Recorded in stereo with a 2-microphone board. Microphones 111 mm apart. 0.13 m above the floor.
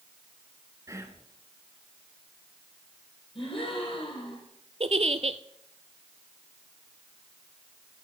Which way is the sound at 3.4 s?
55° left (ahead or behind).